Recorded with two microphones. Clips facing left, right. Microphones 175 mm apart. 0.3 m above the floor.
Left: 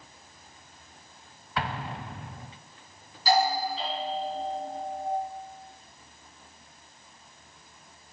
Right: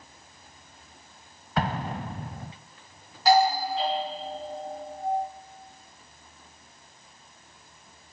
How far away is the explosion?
About 0.5 m.